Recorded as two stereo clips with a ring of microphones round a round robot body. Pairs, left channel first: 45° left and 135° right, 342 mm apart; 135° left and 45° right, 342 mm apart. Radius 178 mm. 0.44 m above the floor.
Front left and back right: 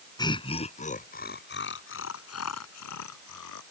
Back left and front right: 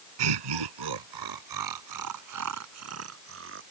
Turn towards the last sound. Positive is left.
turn(degrees=10)